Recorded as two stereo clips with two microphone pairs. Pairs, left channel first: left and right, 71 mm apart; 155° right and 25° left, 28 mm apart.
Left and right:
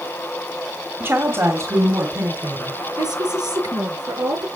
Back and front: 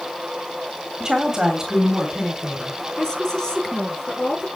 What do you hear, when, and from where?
1.0 s a woman speaking: 35° right, 2.5 m; by 2.8 s 50° right, 4 m
3.0 s a woman speaking: 85° right, 5.5 m